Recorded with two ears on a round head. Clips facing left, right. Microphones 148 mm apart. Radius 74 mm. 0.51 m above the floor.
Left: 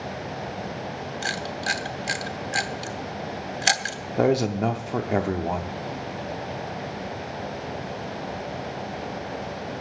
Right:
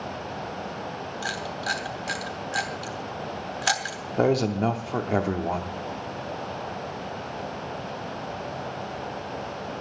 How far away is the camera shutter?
About 1.0 m.